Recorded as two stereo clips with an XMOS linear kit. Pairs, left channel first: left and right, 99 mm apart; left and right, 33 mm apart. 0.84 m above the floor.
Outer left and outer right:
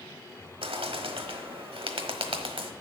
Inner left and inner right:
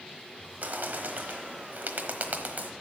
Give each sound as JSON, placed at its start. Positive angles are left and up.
{"t": 0.6, "sound": "a bird", "side_deg": -65, "distance_m": 1.1}